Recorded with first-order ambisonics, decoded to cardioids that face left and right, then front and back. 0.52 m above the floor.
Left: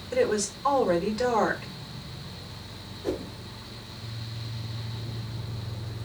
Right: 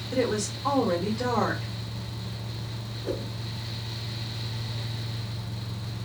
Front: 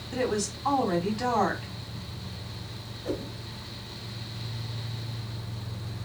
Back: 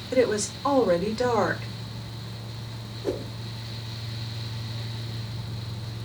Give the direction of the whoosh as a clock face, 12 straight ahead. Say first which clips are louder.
Left 1 dB, back 3 dB; 7 o'clock.